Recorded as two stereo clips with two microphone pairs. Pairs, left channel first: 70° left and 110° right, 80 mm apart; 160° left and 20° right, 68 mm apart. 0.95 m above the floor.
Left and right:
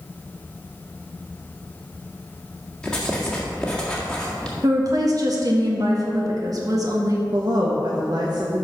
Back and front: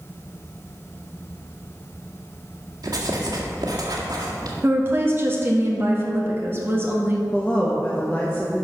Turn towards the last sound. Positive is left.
turn(degrees=-125)